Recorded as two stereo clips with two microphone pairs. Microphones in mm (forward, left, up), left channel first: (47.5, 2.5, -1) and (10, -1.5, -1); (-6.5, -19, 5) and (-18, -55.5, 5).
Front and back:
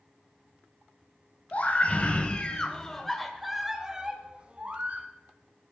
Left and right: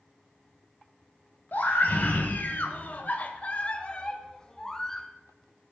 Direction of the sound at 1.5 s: 40° left.